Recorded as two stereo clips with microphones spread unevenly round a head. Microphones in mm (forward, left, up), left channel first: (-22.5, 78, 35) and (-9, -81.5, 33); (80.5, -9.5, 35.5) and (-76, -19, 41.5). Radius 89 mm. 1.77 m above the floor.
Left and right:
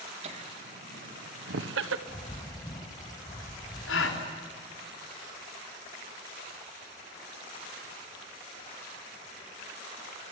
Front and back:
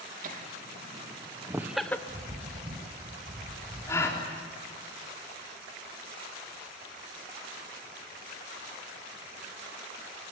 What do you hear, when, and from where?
0.2 s laughter: 135° right, 3 m; by 2.0 s 75° right, 1.3 m
2.1 s a bird: 150° left, 1.9 m
3.9 s a gasp: 80° left, 3.5 m